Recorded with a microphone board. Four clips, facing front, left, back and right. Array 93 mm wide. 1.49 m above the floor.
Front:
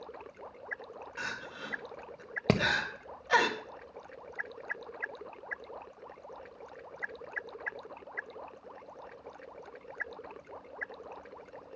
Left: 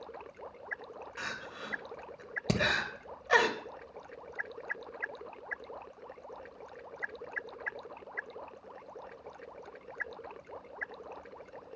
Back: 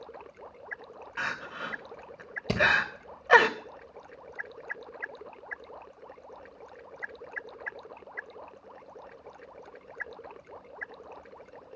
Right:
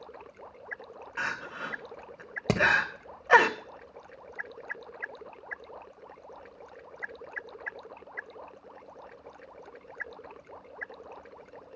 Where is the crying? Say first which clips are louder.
Right 8 dB, back 6 dB; 140° right, 1.2 m.